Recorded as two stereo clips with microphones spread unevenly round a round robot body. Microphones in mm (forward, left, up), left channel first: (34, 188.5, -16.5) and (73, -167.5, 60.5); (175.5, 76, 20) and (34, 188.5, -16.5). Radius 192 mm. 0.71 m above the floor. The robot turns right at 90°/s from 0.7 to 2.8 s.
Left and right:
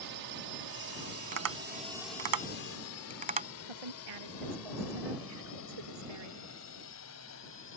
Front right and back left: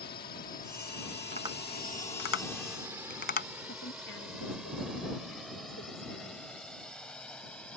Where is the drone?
65° right; by 7.8 s 45° left.